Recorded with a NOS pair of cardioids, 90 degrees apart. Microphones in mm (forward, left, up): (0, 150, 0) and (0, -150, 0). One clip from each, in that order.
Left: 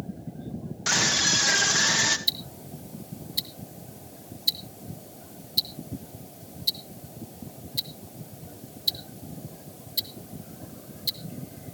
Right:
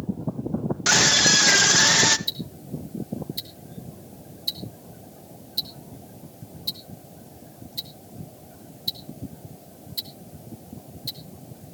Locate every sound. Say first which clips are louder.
0.9 s a scream: right 5 dB; 30° right, 2.0 m
2.3 s ticking: left 2 dB; 25° left, 1.8 m